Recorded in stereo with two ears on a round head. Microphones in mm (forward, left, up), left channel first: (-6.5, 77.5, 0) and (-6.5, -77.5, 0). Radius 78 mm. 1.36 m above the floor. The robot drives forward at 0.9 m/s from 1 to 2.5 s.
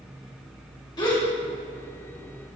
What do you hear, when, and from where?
1.0 s a gasp: 25° left (ahead or behind), 2.0 m; by 1.2 s 30° left (ahead or behind), 1.8 m